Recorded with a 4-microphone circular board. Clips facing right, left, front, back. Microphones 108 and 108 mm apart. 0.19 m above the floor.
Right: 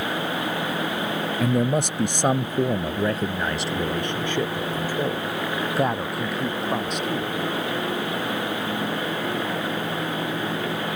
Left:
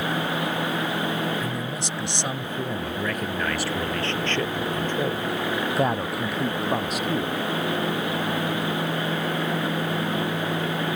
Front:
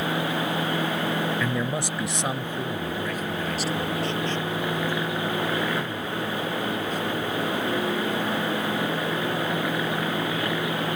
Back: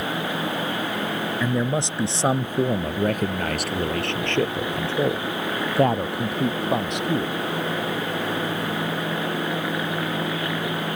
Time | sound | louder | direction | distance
1.4 | a man speaking | right 8 dB, back 3 dB | 105° right | ?